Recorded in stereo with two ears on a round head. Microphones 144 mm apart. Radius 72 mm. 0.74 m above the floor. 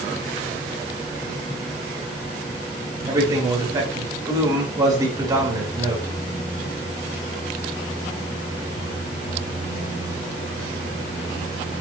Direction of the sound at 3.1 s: 25° right (ahead or behind).